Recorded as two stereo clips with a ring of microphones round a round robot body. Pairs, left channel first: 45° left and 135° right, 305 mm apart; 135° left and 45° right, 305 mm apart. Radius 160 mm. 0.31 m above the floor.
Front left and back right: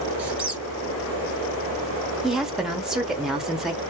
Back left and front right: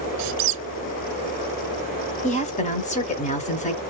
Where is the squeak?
50° right, 0.5 m.